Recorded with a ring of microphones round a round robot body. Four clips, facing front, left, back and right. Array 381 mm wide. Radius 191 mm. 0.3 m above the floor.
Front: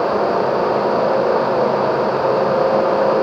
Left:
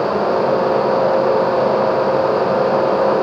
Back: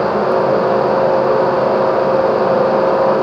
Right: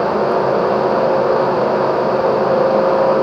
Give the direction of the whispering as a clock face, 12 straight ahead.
I don't hear whispering.